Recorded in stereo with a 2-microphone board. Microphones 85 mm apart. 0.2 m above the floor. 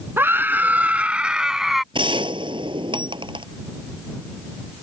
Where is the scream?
25° right (ahead or behind); by 1.8 s centre (ahead or behind).